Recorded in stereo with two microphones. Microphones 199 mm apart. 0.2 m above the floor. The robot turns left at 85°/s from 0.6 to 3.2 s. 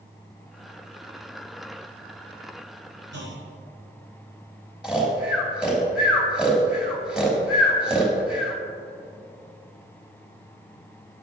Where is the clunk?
65° right (ahead or behind), 5 m; by 3.5 s 70° right (ahead or behind), 5 m.